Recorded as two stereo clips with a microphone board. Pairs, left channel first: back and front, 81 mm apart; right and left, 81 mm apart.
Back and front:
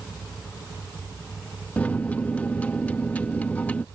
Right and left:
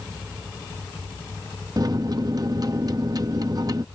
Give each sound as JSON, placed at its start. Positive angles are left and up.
{"t": 1.8, "sound": "a microwave", "azimuth_deg": 110}